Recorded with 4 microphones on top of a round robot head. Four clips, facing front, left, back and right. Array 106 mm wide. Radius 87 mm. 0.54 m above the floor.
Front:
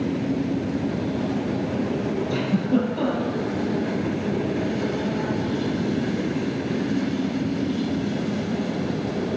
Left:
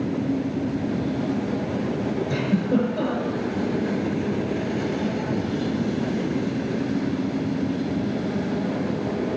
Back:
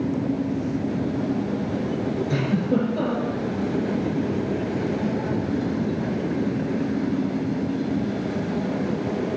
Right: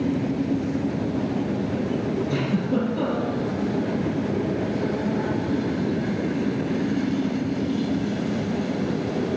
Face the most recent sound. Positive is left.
turn(degrees=135)